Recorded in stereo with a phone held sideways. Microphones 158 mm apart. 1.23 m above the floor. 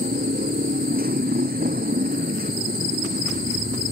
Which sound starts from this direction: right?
A motorcycle, at 0.0 s.